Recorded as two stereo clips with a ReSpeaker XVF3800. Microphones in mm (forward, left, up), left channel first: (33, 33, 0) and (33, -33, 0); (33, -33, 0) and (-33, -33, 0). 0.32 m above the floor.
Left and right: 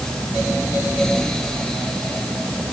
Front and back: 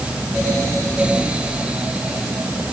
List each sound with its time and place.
Only background noise.